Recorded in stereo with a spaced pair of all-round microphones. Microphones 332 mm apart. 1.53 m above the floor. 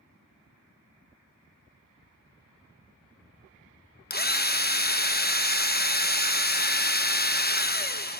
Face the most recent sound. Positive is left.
turn(degrees=30)  # may be behind; listen again after turning